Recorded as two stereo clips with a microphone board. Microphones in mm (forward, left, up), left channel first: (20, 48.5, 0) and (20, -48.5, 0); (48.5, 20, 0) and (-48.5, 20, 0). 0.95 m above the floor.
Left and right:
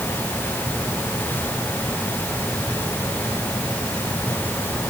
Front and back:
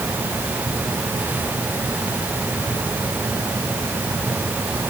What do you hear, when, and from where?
Only background noise.